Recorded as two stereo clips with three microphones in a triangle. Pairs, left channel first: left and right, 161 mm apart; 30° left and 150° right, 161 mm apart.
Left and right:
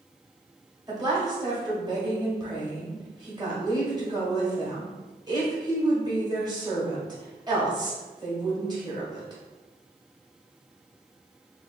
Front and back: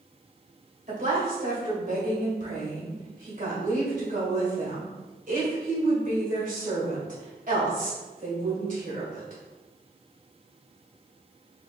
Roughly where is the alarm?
No alarm in this recording.